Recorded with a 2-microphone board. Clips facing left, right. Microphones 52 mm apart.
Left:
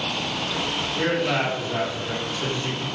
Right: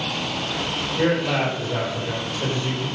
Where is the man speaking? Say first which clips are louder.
Right 2 dB; 45° left (ahead or behind), 1.7 m.